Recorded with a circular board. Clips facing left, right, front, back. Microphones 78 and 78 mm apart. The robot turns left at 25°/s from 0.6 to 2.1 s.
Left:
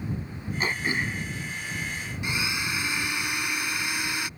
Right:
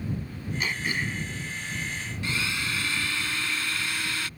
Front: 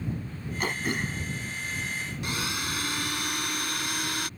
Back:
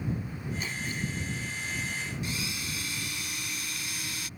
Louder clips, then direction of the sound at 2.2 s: Left 1 dB, front 4 dB; 15° left.